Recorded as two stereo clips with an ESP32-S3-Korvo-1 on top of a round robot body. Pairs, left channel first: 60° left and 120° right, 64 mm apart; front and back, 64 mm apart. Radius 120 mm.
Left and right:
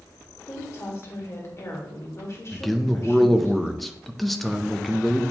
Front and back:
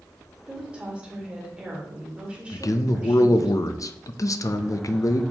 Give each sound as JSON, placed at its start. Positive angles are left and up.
{"t": 0.5, "sound": "a woman speaking", "azimuth_deg": 105, "distance_m": 1.7}
{"t": 2.5, "sound": "a man speaking", "azimuth_deg": -30, "distance_m": 0.6}